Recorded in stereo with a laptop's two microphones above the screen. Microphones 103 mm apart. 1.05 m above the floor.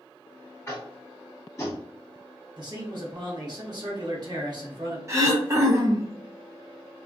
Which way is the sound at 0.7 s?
30° left (ahead or behind).